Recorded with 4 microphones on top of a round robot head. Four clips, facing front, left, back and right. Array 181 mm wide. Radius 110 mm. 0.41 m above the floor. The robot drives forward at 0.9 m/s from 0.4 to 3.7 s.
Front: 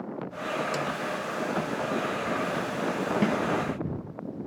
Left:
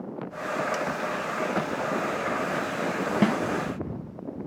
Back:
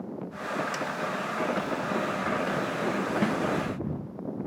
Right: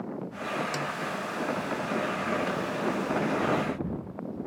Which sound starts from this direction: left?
A snare drum, at 3.2 s.